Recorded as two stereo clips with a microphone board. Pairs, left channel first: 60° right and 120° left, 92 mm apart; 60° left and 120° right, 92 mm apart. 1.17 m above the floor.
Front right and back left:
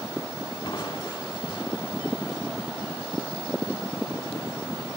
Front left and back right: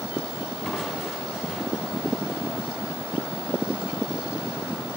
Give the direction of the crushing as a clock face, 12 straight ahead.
1 o'clock.